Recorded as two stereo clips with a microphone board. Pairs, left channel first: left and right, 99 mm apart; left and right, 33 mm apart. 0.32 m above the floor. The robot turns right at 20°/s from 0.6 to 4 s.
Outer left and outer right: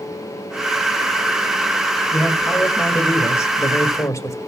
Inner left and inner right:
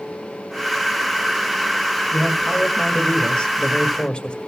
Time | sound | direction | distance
2.1 | a man speaking | 20° left (ahead or behind) | 1.6 m